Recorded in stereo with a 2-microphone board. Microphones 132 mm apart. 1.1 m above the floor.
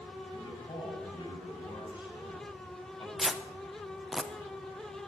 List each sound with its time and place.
0.3 s a man speaking: 35° left (ahead or behind), 6.5 m
3.2 s tearing paper: 5° right (ahead or behind), 0.8 m